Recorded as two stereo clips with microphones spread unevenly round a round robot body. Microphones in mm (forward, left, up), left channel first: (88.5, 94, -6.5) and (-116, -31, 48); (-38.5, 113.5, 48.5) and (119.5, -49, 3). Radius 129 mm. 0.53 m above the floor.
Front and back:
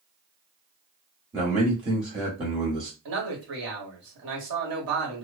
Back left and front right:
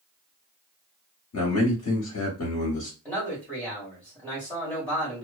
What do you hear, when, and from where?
1.3 s a man speaking: 135° left, 1.2 m
3.0 s a man speaking: 130° right, 1.7 m